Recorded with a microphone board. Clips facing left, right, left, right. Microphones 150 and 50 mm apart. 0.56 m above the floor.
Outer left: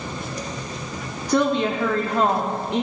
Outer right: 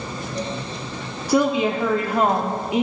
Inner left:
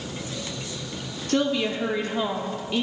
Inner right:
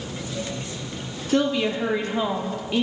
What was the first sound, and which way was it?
A woman speaking, 10° right (ahead or behind).